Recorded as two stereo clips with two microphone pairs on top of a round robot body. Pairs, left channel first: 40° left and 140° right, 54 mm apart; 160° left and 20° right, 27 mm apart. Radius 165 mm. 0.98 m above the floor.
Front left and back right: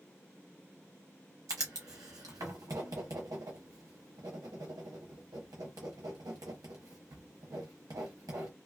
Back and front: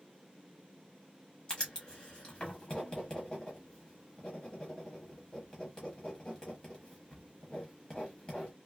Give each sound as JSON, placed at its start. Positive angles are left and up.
{"t": 1.5, "sound": "writing", "azimuth_deg": -145, "distance_m": 0.7}